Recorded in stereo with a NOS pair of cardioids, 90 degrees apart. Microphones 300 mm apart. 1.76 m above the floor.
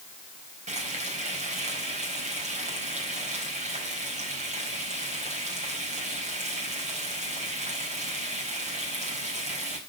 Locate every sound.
0.7 s frying: 25° right, 4 m